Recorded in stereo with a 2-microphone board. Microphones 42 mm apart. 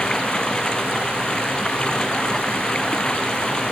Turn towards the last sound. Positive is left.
turn(degrees=20)  # may be behind; listen again after turning